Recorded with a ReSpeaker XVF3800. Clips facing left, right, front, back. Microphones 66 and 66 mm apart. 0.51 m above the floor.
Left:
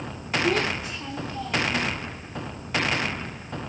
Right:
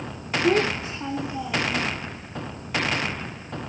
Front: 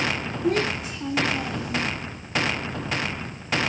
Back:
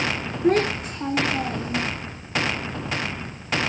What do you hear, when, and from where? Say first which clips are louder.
0.4 s a child speaking: right 5 dB, back 4 dB; 145° right, 1.1 m; by 1.9 s 175° left, 0.5 m